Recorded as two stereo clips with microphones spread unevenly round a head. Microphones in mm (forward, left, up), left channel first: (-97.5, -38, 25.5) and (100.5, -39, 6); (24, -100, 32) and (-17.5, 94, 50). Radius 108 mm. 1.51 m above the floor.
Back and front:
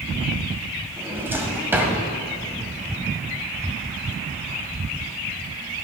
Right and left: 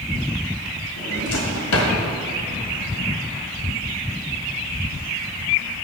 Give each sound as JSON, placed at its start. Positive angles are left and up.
{"t": 1.0, "sound": "a drawer", "azimuth_deg": -80, "distance_m": 2.0}